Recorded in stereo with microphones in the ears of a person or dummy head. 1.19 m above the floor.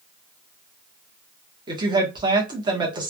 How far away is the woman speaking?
About 1.0 m.